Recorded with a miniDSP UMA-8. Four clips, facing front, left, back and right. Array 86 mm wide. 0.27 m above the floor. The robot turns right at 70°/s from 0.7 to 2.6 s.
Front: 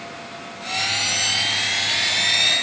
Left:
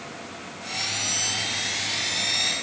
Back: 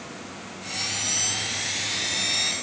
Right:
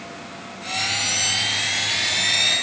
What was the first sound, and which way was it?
Only background noise.